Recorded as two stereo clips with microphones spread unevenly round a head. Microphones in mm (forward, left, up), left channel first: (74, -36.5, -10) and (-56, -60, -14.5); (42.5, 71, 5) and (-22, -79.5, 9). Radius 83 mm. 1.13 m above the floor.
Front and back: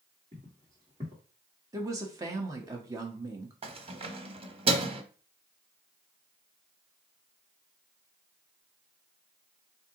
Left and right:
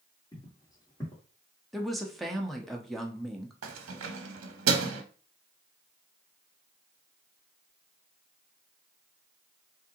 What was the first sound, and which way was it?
Footsteps, 135° left.